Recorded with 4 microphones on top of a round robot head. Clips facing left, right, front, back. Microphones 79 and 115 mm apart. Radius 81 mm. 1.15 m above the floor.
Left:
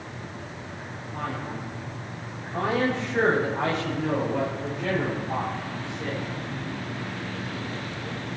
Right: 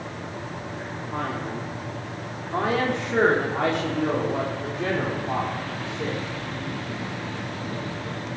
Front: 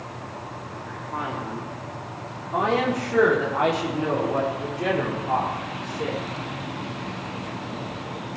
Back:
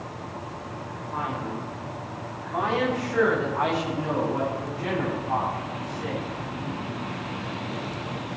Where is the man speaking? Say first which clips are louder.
Right 3 dB, even; 70° right, 3.5 m; by 6.3 s 35° right, 5 m.